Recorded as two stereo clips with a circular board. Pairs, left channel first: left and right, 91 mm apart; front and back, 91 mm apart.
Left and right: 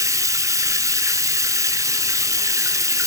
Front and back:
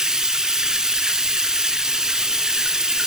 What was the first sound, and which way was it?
Running water, 105° right.